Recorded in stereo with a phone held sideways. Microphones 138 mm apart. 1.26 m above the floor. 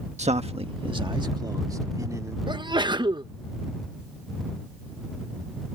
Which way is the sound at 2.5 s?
30° right (ahead or behind).